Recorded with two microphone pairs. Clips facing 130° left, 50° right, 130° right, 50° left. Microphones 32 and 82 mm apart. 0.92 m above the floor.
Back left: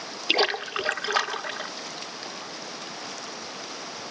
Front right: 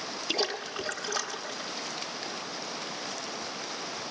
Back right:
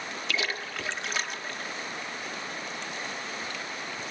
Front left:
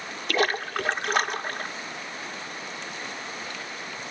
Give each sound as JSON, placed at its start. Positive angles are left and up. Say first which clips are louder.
{"t": 0.3, "sound": "a splash", "louder": "back left 8 dB, front left 9 dB", "azimuth_deg": 90, "distance_m": 0.8}